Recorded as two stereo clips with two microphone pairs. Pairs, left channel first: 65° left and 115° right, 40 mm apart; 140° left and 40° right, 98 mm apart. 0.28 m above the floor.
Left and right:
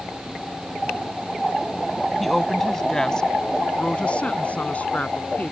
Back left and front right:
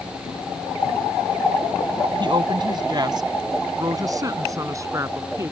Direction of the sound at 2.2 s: 25° right.